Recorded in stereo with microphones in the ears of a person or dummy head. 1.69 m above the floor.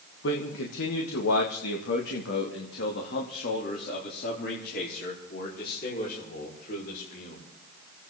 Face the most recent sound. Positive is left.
turn(degrees=55)  # may be behind; listen again after turning